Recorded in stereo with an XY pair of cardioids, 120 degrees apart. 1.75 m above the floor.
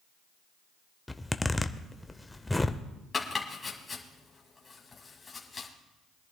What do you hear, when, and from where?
1.1 s a zipper: 10° left, 0.6 m
3.1 s chopping: 25° left, 2 m